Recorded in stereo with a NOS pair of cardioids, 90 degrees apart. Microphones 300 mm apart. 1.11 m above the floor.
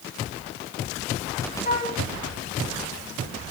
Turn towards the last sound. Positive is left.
turn(degrees=30)